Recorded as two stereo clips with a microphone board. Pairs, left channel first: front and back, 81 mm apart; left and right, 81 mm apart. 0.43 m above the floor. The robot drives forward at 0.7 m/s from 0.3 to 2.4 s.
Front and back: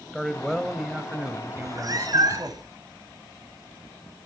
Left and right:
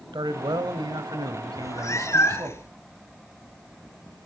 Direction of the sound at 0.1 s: 85° right.